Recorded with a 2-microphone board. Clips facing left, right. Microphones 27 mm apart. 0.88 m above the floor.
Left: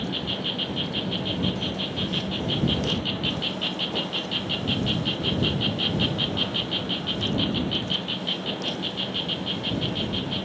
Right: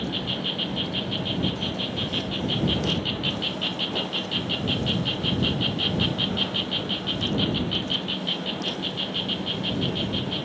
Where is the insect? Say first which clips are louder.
Even; centre (ahead or behind).